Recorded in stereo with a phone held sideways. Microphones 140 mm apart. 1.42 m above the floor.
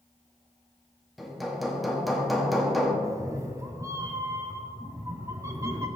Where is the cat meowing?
20° right (ahead or behind), 0.6 m.